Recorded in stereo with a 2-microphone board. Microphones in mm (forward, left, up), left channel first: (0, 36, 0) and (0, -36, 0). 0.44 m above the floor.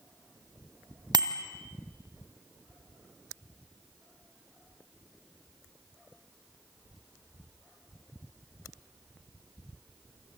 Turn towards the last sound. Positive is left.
turn(degrees=-75)  # may be behind; listen again after turning